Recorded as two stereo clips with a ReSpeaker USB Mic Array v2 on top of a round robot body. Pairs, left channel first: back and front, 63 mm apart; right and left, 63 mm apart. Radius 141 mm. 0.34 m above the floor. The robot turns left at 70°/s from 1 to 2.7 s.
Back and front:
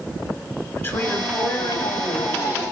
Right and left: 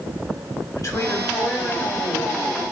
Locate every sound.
0.7 s a woman speaking: 125° right, 5.5 m; by 2.7 s 120° left, 5.5 m